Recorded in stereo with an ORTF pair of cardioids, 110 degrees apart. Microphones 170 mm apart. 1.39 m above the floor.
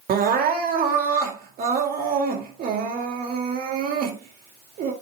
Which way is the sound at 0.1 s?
60° right.